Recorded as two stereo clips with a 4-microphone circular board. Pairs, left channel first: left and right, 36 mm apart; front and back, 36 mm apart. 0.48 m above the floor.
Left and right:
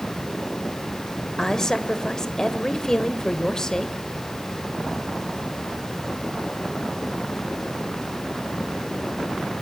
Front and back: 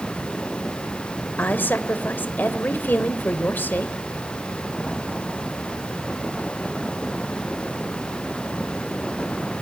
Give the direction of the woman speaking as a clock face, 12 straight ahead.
11 o'clock.